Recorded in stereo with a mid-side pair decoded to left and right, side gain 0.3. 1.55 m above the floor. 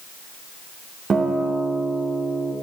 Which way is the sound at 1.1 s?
60° right.